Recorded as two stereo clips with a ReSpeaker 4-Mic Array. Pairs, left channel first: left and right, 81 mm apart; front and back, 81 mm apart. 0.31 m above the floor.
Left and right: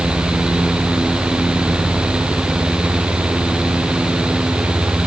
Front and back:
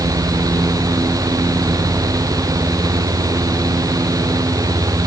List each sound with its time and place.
Only background noise.